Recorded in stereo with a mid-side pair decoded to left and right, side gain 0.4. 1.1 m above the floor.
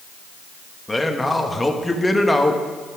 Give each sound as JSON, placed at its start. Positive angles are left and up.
{"t": 0.9, "sound": "a man speaking", "azimuth_deg": 15, "distance_m": 1.3}